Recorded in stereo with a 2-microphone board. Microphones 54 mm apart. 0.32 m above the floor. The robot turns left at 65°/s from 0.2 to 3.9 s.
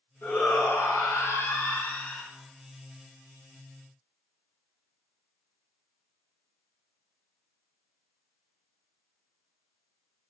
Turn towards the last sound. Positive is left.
turn(degrees=-95)